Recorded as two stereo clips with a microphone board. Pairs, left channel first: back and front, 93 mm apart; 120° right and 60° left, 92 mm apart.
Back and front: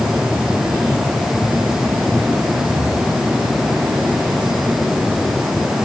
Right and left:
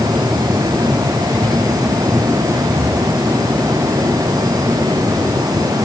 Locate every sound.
Only background noise.